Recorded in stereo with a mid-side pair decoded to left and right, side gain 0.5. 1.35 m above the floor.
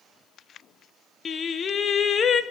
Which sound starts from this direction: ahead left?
Singing, at 1.2 s.